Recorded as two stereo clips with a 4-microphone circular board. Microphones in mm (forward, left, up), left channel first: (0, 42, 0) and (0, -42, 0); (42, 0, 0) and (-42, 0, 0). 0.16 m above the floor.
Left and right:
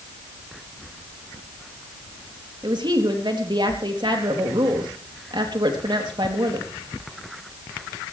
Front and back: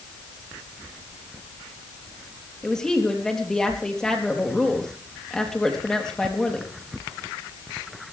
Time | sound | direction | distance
2.6 | a woman speaking | 85° right | 4 m